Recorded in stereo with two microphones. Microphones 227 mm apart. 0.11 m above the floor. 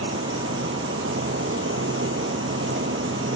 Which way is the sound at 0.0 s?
65° right (ahead or behind).